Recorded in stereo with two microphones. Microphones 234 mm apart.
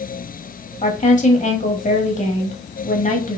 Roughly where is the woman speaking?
Left.